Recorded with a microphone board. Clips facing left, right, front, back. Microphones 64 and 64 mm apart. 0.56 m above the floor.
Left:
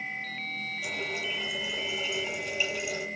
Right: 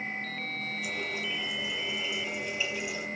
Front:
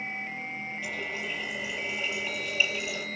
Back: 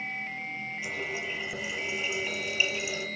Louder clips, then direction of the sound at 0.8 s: Left 2 dB, even; 100° left.